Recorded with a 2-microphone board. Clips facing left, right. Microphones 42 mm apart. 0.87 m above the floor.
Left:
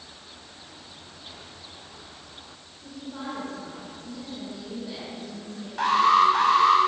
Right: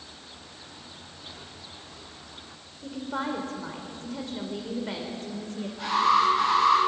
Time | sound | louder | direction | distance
2.8 | a woman speaking | right 5 dB | 65° right (ahead or behind) | 3.5 m
5.8 | an alarm | left 3 dB | 80° left | 6.5 m